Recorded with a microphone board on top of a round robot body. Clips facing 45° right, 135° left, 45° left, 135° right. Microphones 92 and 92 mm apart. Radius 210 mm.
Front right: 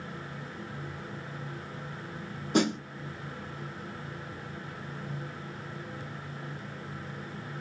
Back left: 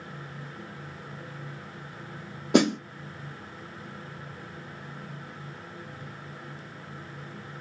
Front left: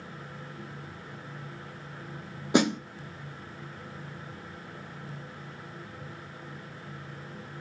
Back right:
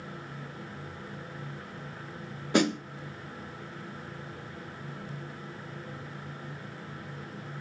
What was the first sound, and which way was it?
A snare drum, 115° left.